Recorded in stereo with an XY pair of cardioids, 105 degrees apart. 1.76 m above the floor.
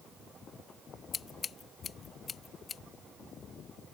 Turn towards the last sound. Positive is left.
turn(degrees=45)